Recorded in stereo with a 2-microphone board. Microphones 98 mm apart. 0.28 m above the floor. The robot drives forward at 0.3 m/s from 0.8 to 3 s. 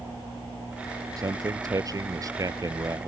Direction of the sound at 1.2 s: 40° right (ahead or behind).